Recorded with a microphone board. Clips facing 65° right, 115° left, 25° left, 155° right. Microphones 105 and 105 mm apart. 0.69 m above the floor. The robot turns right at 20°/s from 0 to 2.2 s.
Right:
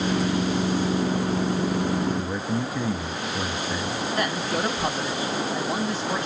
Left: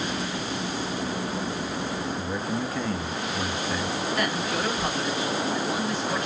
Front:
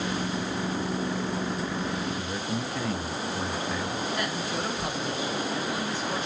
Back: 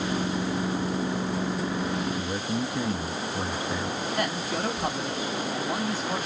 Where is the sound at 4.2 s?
120° right, 1.7 m.